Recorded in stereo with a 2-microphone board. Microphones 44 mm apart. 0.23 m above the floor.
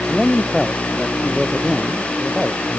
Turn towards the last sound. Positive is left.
turn(degrees=-15)  # may be behind; listen again after turning